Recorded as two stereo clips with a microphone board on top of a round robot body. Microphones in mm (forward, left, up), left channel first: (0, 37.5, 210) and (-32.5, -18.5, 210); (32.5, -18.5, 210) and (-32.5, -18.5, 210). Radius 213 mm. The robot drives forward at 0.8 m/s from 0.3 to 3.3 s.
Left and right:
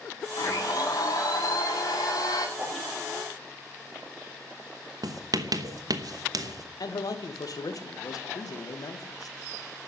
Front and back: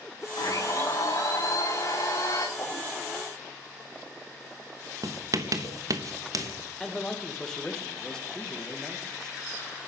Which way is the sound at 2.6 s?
60° right.